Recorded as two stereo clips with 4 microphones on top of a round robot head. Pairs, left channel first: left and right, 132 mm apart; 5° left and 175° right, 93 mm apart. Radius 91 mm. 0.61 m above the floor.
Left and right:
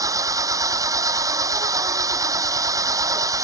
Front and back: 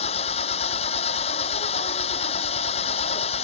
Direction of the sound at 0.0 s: 25° right.